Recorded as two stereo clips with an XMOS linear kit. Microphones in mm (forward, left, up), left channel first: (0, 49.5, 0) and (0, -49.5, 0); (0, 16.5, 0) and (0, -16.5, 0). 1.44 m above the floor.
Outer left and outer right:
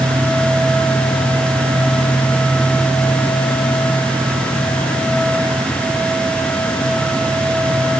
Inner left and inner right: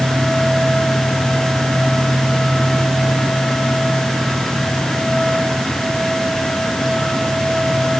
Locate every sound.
Only background noise.